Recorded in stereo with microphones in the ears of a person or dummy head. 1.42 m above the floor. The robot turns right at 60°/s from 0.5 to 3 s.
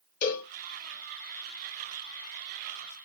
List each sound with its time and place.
0.2 s a cowbell: 50° left (ahead or behind), 1.8 m